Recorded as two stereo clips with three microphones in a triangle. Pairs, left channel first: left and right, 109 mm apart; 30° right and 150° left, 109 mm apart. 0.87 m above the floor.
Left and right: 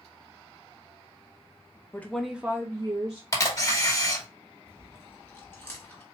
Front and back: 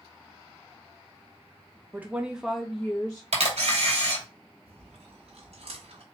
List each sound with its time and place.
1.9 s a woman speaking: 110° left, 0.7 m; by 3.2 s 110° right, 1.0 m
3.3 s a camera shutter: 145° left, 1.9 m
4.7 s chewing: 155° left, 1.6 m